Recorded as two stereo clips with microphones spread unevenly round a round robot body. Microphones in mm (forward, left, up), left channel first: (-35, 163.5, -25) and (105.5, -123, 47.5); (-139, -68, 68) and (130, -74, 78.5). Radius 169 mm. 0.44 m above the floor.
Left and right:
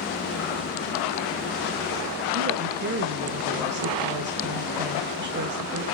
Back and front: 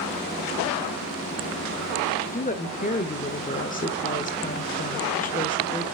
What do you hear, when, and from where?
2.3 s a woman speaking: 125° right, 1.6 m